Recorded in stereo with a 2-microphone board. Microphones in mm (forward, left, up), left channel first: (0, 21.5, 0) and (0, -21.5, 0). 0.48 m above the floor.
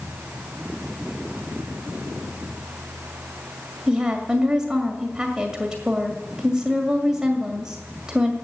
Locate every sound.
3.9 s a woman speaking: 15° right (ahead or behind), 2.0 m